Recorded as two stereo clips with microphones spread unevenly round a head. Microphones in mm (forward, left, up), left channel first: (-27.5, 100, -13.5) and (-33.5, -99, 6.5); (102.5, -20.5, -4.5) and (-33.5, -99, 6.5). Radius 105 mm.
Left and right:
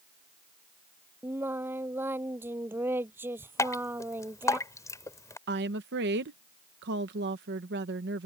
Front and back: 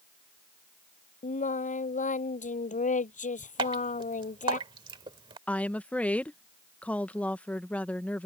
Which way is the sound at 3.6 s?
165° left.